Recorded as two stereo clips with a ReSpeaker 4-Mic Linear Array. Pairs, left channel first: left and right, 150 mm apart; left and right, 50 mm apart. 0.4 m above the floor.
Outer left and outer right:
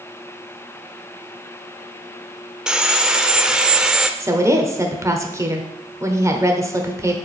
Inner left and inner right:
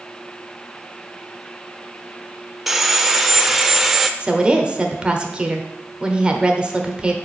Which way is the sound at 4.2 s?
20° right (ahead or behind).